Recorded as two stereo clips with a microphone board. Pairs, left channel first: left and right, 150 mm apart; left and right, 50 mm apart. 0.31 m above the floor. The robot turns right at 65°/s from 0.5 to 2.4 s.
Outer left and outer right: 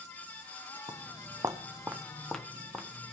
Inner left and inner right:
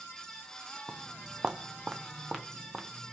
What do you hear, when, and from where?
0.9 s footsteps: 25° right (ahead or behind), 0.7 m; by 3.1 s 5° right (ahead or behind), 1.3 m